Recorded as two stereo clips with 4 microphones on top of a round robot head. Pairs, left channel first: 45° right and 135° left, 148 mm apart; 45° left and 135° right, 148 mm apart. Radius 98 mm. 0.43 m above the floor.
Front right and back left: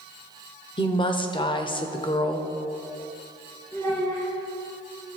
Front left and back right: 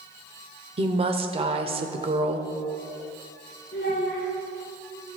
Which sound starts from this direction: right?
A woman speaking, at 0.8 s.